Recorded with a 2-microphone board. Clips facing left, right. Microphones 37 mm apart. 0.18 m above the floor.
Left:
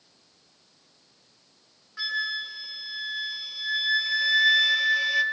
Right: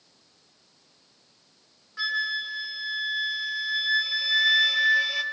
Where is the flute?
Centre (ahead or behind), 0.7 m.